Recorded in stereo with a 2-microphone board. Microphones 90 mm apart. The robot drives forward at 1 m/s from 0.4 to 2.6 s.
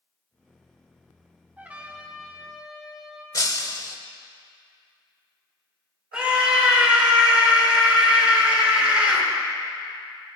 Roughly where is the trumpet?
Centre.